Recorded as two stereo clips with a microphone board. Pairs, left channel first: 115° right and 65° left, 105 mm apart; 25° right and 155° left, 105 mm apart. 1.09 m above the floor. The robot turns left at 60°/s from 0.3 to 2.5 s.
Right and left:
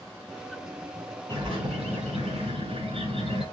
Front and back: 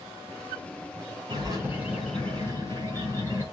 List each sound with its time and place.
1.3 s a bird: 115° left, 6 m; by 3.4 s 45° left, 6 m